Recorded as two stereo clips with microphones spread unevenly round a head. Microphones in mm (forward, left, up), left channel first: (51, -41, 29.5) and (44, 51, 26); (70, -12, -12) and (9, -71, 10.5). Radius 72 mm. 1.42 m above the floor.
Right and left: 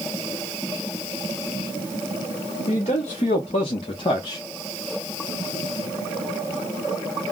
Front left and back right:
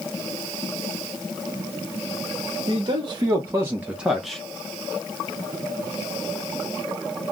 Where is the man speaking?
115° right, 1.0 m; by 4.4 s 45° right, 0.7 m.